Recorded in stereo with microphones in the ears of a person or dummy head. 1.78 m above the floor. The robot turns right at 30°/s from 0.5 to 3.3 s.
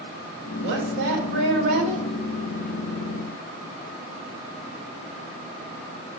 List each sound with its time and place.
0.6 s a woman speaking: 90° right, 5.5 m; by 2.1 s 50° right, 5.5 m